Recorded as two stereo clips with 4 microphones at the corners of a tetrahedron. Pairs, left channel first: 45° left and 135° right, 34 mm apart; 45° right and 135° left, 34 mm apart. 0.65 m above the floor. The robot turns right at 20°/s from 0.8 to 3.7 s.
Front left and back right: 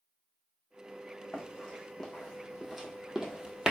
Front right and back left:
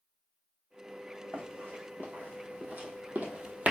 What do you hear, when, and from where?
1.3 s running footsteps: 110° left, 2 m; by 3.7 s 160° left, 0.9 m